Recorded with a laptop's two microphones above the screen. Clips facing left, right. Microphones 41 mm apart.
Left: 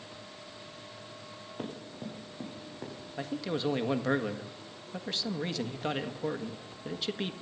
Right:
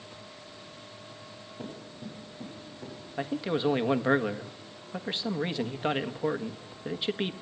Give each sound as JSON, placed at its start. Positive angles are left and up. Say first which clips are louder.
{"t": 1.6, "sound": "running footsteps", "louder": "left 1 dB", "side_deg": 70, "distance_m": 9.5}
{"t": 3.2, "sound": "a man speaking", "louder": "right 4 dB", "side_deg": -25, "distance_m": 1.4}